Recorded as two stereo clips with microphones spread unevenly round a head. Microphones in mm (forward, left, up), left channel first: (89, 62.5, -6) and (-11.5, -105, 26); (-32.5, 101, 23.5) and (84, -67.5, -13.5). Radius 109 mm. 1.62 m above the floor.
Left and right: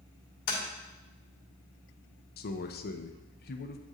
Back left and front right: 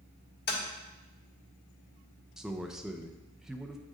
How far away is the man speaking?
About 0.6 m.